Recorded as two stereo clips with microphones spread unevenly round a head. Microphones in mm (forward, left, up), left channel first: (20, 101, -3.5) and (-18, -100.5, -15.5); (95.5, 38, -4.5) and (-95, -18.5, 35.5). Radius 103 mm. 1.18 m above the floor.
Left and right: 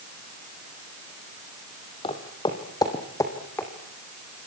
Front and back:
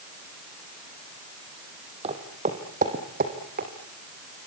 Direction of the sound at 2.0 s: 140° left.